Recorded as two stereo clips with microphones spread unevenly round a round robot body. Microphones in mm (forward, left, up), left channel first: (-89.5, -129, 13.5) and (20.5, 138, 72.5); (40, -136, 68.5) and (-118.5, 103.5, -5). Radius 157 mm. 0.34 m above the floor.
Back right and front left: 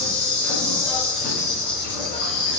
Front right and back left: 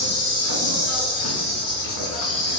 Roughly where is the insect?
Ahead right.